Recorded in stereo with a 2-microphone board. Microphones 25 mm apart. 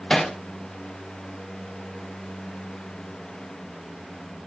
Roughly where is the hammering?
Left.